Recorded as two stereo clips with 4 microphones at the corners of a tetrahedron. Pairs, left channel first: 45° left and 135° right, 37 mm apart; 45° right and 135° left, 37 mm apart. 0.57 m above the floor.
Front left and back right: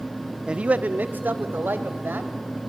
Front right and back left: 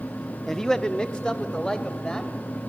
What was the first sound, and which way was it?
A man speaking, 115° right.